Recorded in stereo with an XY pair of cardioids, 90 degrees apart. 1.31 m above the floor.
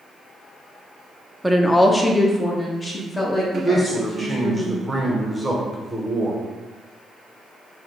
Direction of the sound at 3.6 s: 10° right.